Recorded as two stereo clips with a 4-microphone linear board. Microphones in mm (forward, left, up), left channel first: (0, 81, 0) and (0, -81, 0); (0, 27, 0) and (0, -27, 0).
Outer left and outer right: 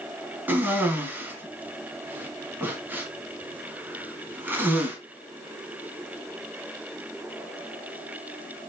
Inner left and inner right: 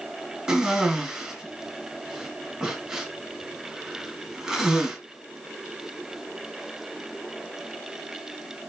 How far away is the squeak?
I don't hear a squeak.